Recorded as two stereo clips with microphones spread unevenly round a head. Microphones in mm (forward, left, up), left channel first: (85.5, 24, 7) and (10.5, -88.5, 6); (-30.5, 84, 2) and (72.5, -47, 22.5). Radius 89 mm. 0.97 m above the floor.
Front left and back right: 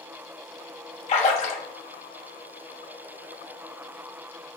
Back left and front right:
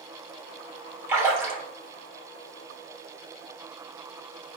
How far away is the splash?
About 1.1 m.